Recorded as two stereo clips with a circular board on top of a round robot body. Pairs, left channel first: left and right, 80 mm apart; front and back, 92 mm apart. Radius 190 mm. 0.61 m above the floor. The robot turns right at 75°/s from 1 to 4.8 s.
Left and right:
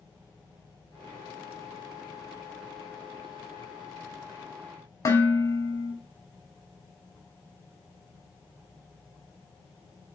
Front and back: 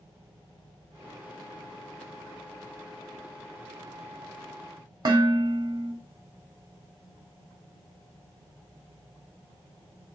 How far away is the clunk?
I don't hear a clunk.